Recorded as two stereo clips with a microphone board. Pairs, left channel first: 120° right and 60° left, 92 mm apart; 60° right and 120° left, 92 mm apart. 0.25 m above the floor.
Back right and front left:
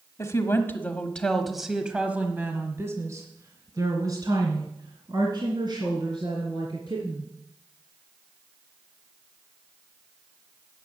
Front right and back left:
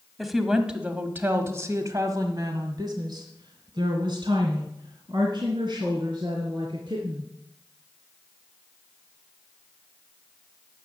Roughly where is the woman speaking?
Behind right.